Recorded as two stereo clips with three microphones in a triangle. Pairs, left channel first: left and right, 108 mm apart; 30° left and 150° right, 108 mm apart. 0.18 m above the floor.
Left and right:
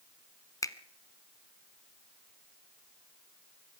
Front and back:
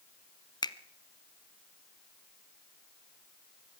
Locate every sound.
0.6 s a finger snap: 50° left, 1.2 m